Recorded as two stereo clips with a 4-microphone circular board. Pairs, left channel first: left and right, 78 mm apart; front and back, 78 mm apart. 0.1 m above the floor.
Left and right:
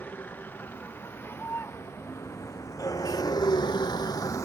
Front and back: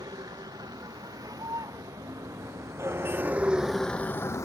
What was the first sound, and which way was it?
A vehicle, 155° left.